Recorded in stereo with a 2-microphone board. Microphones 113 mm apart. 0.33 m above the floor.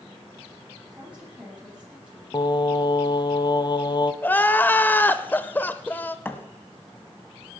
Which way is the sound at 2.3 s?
40° left (ahead or behind).